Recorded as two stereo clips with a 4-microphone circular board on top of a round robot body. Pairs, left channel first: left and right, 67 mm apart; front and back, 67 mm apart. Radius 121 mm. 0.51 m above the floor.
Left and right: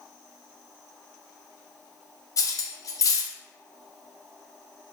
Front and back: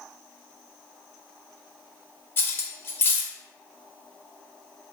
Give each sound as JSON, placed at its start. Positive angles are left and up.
{"t": 2.4, "sound": "cutlery clinking", "azimuth_deg": 55, "distance_m": 0.5}